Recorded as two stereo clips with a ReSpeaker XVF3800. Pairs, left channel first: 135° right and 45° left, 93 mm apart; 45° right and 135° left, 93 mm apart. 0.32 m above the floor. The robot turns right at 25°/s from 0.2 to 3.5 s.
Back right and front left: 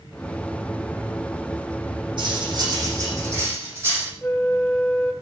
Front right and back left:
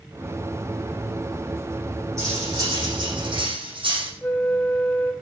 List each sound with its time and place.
2.2 s cutlery clinking: 75° left, 8 m; by 4.1 s 110° left, 8 m
4.2 s a flute: 90° right, 1.1 m